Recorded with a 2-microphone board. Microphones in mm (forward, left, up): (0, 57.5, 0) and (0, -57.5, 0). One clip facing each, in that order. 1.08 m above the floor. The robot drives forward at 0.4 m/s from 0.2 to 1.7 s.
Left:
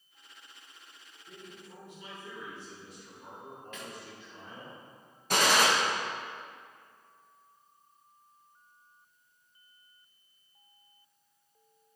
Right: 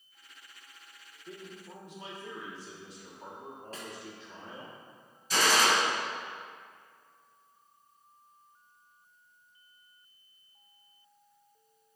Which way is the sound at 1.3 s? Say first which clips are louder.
Right 4 dB; 75° right (ahead or behind).